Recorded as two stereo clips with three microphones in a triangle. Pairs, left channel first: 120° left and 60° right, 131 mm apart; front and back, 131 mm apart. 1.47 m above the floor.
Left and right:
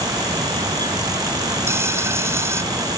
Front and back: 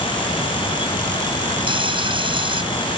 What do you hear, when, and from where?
1.7 s frying: 130° right